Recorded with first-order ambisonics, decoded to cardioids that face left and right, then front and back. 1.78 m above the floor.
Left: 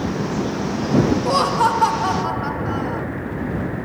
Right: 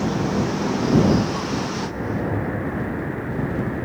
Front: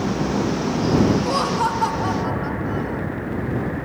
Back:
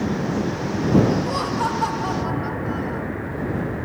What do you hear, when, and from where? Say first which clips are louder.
1.2 s laughter: left 9 dB, front 3 dB; 75° left; by 3.0 s 95° left